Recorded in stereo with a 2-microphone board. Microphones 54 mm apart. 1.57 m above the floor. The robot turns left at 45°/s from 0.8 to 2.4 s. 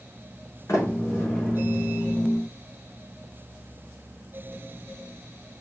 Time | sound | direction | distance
0.7 | a sliding door | 60° left (ahead or behind) | 3.5 m